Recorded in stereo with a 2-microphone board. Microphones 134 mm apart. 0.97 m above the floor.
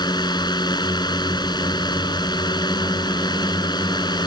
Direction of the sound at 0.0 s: 30° left (ahead or behind).